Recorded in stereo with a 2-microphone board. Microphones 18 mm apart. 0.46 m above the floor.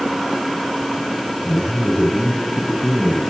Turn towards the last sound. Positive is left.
turn(degrees=40)  # may be behind; listen again after turning